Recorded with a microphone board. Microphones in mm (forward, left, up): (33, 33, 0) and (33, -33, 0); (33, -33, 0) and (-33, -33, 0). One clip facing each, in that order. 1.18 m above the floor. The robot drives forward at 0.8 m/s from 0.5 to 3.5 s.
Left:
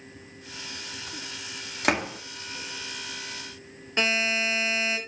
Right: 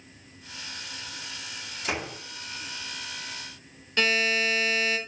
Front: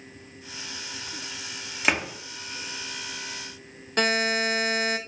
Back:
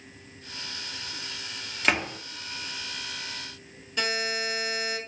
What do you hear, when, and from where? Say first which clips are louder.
1.8 s a door slam: left 6 dB, even; 80° left, 1.9 m; by 2.2 s 90° left, 1.9 m
4.0 s a buzzer: right 1 dB, front 6 dB; 25° left, 3 m